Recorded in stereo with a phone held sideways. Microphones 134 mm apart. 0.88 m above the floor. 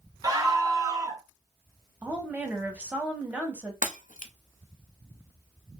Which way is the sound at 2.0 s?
10° right (ahead or behind).